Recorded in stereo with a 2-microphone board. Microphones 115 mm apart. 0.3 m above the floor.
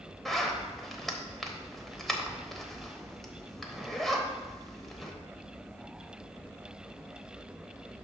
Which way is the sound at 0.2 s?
Centre (ahead or behind).